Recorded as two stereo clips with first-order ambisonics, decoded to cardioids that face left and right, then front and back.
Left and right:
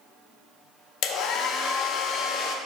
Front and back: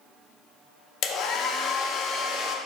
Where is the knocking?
I don't hear knocking.